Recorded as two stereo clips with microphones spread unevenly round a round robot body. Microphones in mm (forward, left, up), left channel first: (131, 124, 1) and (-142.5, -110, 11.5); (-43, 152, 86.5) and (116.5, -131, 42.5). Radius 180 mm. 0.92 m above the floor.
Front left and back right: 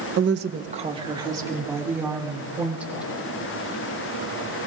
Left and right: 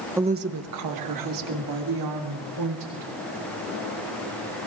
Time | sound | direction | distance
0.2 | a woman speaking | 125° right | 0.7 m